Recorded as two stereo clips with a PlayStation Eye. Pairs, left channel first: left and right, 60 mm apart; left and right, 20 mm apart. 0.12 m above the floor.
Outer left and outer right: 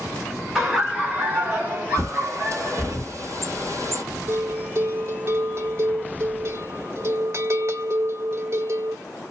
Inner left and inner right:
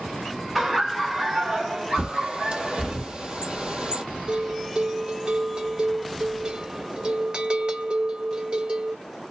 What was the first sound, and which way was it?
Laughter, 5° right (ahead or behind).